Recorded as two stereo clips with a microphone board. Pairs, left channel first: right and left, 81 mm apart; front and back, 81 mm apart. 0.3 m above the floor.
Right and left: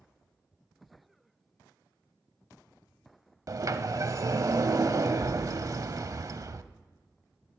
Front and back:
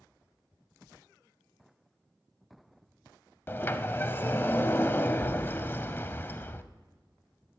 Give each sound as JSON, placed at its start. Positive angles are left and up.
{"t": 3.5, "sound": "a sliding door", "azimuth_deg": 55, "distance_m": 0.5}